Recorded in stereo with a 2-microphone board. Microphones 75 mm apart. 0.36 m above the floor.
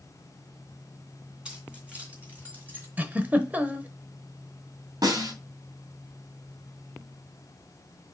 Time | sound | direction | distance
1.4 | keys jangling | 15° right (ahead or behind) | 3 m
3.0 | a giggle | 25° right (ahead or behind) | 0.9 m
5.0 | a snare drum | 60° right (ahead or behind) | 2.5 m